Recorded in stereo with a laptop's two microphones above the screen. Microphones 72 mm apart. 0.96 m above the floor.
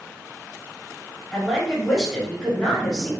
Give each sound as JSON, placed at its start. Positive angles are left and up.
{"t": 1.3, "sound": "a woman speaking", "side_deg": 5, "distance_m": 1.2}